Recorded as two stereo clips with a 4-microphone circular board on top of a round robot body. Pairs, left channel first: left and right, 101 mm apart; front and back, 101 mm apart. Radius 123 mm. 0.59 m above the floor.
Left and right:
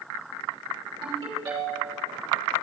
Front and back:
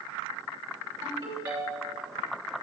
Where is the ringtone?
135° right, 3 m.